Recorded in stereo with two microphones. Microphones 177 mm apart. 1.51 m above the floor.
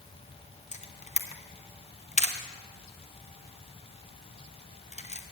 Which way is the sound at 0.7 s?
40° left (ahead or behind).